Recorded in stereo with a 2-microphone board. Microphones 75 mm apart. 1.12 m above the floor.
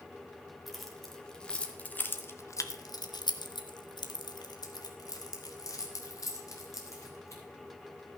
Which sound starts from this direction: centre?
Keys jangling, at 0.7 s.